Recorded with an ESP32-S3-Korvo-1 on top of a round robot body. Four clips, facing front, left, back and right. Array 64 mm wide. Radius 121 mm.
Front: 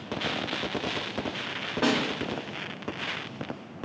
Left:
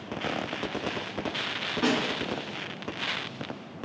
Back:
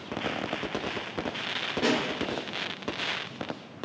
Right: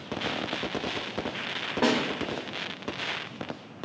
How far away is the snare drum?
About 0.9 m.